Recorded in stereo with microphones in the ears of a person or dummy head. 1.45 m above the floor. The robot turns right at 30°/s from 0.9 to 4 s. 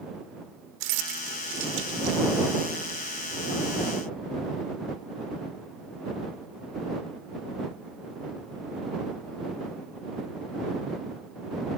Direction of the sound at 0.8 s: 80° right.